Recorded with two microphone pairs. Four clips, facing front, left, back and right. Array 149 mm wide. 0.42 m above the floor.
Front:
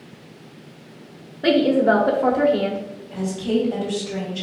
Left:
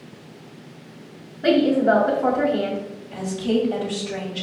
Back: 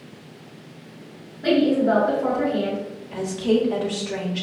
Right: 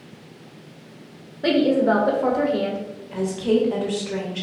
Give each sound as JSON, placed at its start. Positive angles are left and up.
{"t": 1.4, "sound": "a woman speaking", "azimuth_deg": -30, "distance_m": 1.1}
{"t": 3.1, "sound": "a woman speaking", "azimuth_deg": -130, "distance_m": 1.8}